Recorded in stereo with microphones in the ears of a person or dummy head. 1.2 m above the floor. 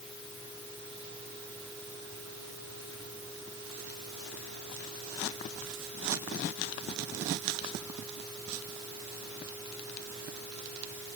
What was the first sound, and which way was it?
Only background noise.